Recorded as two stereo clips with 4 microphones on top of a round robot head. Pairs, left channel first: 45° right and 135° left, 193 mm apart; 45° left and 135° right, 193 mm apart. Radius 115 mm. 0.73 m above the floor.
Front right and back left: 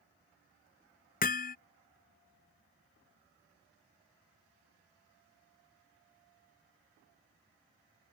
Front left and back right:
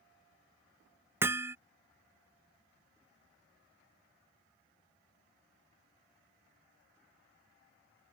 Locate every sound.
1.2 s hammering: 60° right